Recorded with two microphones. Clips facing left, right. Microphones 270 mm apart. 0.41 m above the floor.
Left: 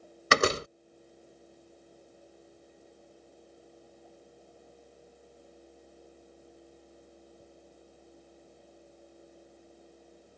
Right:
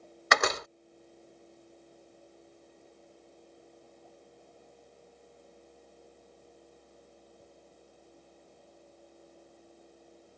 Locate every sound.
0.3 s a door slam: 35° left (ahead or behind)